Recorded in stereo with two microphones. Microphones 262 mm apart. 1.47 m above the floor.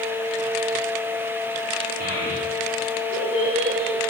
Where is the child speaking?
60° left (ahead or behind), 3 m; by 4.0 s 20° left (ahead or behind), 3 m.